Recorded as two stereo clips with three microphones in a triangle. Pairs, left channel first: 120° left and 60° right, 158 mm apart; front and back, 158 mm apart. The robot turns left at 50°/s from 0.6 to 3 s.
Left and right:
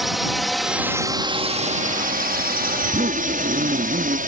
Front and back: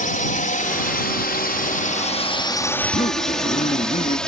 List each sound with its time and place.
0.0 s a drone: 30° left; by 4.3 s 85° right
2.8 s a zipper: 25° right; by 4.2 s 35° right